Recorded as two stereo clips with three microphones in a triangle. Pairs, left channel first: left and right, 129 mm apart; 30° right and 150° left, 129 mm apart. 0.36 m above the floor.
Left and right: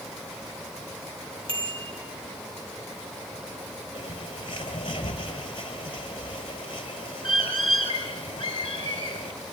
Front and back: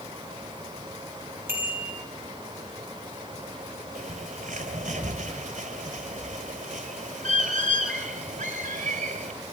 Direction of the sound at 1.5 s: 135° right.